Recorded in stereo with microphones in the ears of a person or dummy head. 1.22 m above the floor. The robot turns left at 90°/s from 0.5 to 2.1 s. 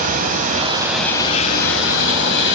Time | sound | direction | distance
0.0 | running water | 140° right | 2.5 m